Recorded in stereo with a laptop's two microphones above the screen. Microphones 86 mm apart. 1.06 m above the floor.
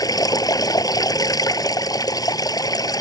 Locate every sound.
0.0 s running water: 45° left (ahead or behind)